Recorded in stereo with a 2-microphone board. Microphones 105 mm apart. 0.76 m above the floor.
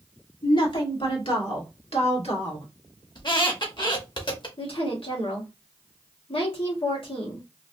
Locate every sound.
0.4 s a woman speaking: 55° left (ahead or behind), 1.8 m; by 2.7 s 70° left (ahead or behind), 1.9 m
3.1 s a squeak: 50° left (ahead or behind), 1.0 m
4.6 s a woman speaking: 60° left (ahead or behind), 1.7 m